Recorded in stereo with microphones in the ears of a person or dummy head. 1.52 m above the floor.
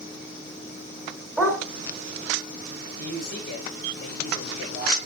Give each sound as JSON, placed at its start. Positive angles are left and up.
{"t": 1.4, "sound": "a dog barking", "side_deg": 5, "distance_m": 3.5}
{"t": 3.0, "sound": "a man speaking", "side_deg": 40, "distance_m": 5.5}